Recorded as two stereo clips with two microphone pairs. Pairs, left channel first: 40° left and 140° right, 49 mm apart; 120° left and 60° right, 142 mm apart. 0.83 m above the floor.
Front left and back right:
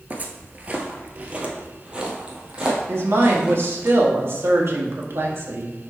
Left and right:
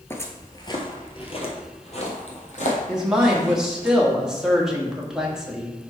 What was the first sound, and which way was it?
Footsteps, 170° right.